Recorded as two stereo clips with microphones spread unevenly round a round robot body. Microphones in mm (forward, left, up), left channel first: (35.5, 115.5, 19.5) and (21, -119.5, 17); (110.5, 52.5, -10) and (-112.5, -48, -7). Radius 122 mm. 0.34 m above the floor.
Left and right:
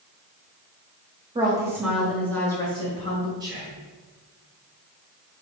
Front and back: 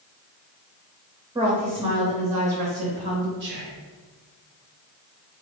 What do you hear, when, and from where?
1.4 s a woman speaking: 110° right, 0.8 m; by 3.3 s 145° left, 1.3 m
3.4 s whispering: 160° right, 1.2 m